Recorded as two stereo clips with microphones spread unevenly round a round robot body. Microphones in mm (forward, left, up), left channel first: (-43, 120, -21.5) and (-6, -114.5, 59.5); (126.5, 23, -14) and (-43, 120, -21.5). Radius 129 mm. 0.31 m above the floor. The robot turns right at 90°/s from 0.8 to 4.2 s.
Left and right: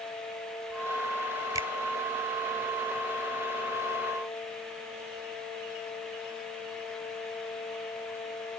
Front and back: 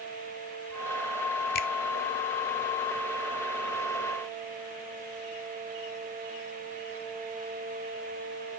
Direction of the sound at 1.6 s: 5° left.